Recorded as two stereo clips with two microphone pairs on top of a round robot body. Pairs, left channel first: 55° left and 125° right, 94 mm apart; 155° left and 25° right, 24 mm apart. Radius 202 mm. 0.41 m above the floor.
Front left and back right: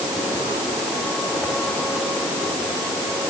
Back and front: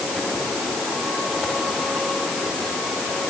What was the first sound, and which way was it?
Only background noise.